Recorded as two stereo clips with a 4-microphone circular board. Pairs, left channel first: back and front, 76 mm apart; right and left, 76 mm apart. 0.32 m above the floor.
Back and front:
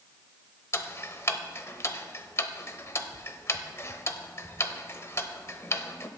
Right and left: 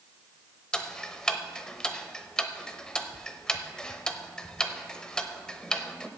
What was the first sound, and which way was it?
Ticking, 165° right.